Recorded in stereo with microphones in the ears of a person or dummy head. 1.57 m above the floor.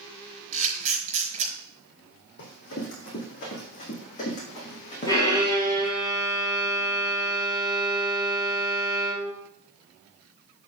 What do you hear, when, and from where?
0.5 s a camera shutter: 40° right (ahead or behind), 5 m
2.4 s running footsteps: 55° left (ahead or behind), 3.5 m; by 5.9 s 30° left (ahead or behind), 4.5 m
5.1 s a violin: 25° left (ahead or behind), 5 m